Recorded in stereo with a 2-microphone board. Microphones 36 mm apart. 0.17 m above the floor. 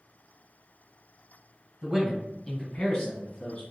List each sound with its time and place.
1.8 s a man speaking: 15° right (ahead or behind), 1.0 m; by 3.6 s 35° left (ahead or behind), 1.5 m